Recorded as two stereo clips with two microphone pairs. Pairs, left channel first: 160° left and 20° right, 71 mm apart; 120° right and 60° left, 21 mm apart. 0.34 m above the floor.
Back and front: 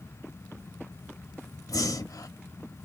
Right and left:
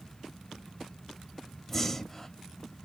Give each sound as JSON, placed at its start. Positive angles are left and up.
{"t": 1.7, "sound": "breathing", "azimuth_deg": 175, "distance_m": 0.7}